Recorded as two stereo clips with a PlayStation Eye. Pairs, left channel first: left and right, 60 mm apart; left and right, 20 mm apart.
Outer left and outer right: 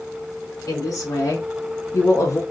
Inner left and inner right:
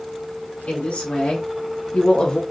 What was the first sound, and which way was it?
A woman speaking, 85° left.